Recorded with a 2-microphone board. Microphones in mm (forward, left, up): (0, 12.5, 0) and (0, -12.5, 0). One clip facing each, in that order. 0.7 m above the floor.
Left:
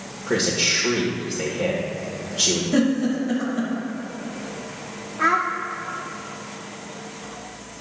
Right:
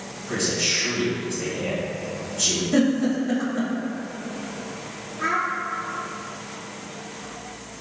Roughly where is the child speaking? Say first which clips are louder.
Left 4 dB; left.